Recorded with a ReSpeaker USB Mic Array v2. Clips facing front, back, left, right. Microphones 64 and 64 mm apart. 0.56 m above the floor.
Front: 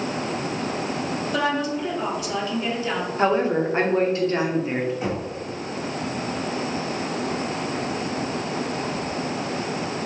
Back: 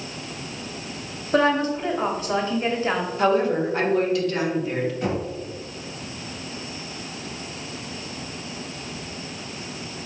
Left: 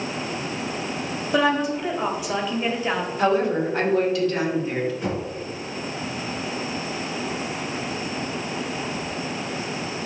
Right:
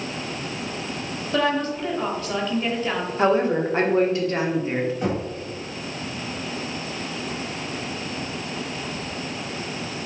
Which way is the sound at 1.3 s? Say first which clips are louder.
Back 6 dB, left 2 dB; 160° left.